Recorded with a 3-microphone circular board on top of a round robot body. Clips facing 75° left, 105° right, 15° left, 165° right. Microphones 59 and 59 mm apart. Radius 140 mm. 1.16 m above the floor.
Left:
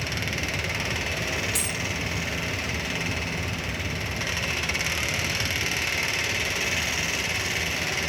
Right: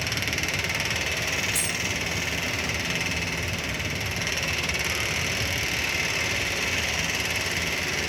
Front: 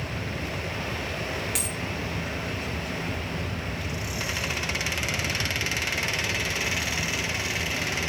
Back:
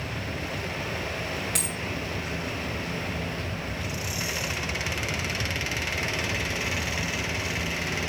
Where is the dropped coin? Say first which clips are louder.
Right 1 dB, even; 100° left, 0.7 m.